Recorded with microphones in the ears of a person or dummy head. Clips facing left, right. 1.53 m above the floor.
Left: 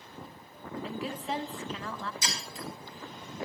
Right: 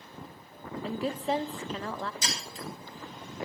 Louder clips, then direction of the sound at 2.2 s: Right 1 dB; 70° right (ahead or behind).